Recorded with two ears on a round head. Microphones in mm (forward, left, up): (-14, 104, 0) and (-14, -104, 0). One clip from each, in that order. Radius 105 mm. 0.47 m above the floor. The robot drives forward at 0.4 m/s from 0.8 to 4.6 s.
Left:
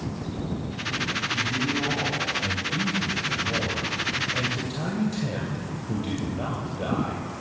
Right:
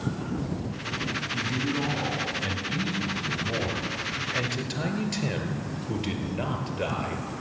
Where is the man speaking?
30° right (ahead or behind), 3 m; by 7.3 s 45° right (ahead or behind), 2 m.